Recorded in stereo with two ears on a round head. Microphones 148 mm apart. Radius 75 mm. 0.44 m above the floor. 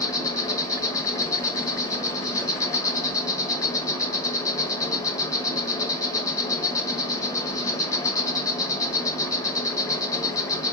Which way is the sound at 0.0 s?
20° left (ahead or behind).